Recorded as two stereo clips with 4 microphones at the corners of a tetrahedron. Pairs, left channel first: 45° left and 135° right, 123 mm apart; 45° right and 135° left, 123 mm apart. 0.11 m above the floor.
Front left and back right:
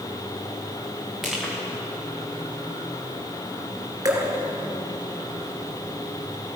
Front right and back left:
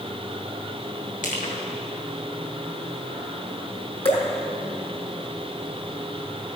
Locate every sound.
1.2 s crushing: 45° right, 3 m
4.0 s dripping: 75° right, 2.0 m